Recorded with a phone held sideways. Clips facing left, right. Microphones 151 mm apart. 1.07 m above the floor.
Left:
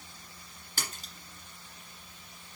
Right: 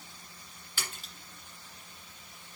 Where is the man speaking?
I don't hear a man speaking.